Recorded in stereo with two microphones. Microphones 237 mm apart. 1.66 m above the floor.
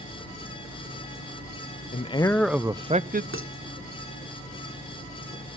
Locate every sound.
1.9 s a man speaking: 30° left (ahead or behind), 0.5 m; by 3.2 s 40° right (ahead or behind), 0.6 m
3.3 s dishes clattering: 60° right (ahead or behind), 3 m